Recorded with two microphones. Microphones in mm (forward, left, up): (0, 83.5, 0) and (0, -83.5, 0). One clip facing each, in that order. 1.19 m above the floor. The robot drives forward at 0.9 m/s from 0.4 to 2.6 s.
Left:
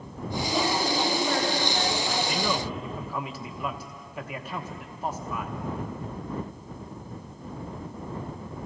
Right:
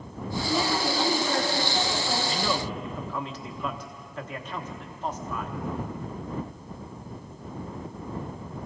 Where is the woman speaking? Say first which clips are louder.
Even; centre (ahead or behind), 9 m.